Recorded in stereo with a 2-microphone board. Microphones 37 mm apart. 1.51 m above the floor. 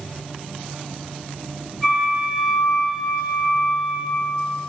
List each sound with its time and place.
1.8 s a flute: 5° left (ahead or behind), 5.5 m